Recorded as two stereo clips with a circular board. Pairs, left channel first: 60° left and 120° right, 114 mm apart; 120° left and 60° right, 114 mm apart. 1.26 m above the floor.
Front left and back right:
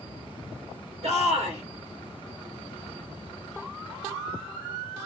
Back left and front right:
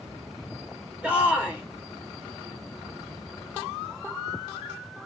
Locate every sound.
1.0 s a shout: 135° right, 1.9 m